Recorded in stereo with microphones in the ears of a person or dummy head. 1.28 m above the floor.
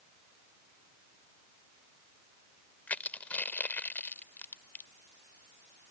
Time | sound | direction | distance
2.9 | crushing | 10° left (ahead or behind) | ?